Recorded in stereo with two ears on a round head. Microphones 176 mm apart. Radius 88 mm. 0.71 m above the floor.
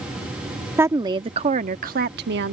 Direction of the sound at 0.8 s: 10° right (ahead or behind).